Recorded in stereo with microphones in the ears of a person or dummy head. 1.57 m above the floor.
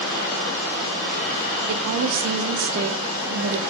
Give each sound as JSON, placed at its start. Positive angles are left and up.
{"t": 1.7, "sound": "a woman speaking", "side_deg": -65, "distance_m": 0.6}